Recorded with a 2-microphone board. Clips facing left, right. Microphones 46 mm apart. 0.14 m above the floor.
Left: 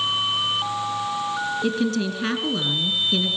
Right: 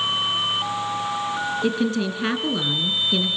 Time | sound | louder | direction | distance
1.6 | a woman speaking | right 1 dB | 15° right (ahead or behind) | 2 m